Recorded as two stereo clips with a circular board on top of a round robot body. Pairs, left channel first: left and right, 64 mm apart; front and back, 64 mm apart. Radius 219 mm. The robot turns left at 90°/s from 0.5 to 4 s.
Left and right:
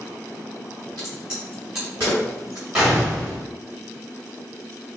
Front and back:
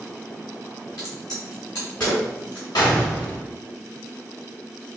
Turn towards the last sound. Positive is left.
turn(degrees=-120)